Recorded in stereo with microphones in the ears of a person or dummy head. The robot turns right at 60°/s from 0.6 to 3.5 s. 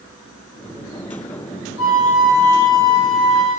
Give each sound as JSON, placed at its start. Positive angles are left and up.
{"t": 1.8, "sound": "a flute", "azimuth_deg": 75, "distance_m": 2.5}